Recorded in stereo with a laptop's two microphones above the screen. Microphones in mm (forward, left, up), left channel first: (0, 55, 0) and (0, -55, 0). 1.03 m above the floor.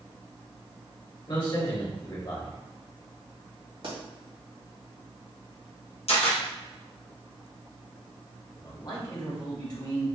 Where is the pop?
55° right (ahead or behind), 1.7 m.